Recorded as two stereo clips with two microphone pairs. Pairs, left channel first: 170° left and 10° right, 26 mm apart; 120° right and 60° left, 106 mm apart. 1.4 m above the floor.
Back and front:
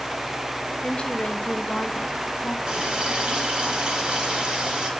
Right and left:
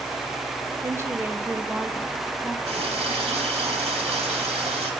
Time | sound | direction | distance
0.8 | a woman speaking | 120° left | 1.5 m
2.7 | a running tap | 45° left | 2.5 m